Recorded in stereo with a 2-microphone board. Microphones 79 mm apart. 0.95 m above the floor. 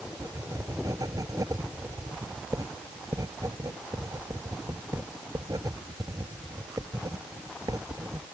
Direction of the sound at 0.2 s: 55° right (ahead or behind).